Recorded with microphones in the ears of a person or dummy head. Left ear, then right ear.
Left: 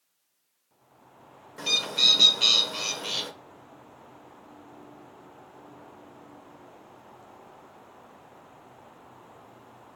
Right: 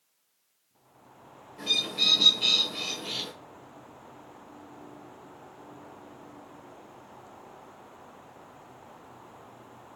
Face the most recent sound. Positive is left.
turn(degrees=60)  # may be behind; listen again after turning